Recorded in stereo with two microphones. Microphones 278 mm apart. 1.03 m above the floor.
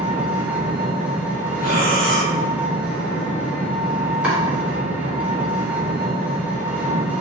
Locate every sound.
0.0 s an engine running: 5° right (ahead or behind), 0.7 m
1.6 s breathing: 35° left (ahead or behind), 0.9 m
4.2 s chopping: 5° right (ahead or behind), 1.1 m